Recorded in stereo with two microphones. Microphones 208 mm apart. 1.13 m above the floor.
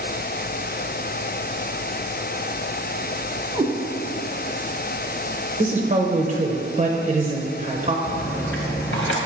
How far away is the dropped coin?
About 1.0 m.